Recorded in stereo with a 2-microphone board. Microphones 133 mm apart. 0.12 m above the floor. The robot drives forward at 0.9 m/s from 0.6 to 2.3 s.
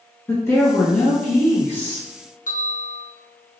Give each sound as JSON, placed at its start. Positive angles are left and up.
{"t": 0.3, "sound": "a woman speaking", "side_deg": 20, "distance_m": 1.6}
{"t": 2.5, "sound": "a bell", "side_deg": 75, "distance_m": 0.9}